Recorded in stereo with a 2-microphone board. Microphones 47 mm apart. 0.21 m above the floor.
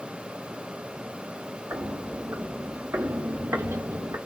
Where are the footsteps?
60° right (ahead or behind), 2 m; by 4.2 s 80° right, 1.1 m.